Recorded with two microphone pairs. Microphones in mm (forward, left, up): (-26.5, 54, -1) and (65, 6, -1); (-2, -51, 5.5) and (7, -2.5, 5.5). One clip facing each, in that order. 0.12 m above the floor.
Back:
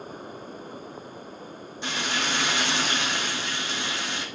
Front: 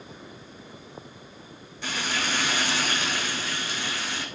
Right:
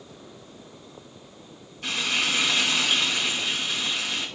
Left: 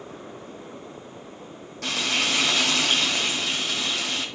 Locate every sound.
1.8 s frying: 85° left, 1.8 m